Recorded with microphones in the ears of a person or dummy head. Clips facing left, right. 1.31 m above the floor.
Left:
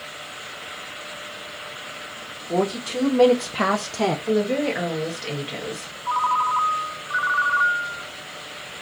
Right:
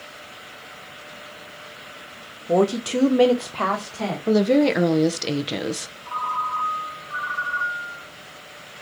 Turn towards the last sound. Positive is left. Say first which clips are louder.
# left 6 dB
turn(degrees=65)  # may be behind; listen again after turning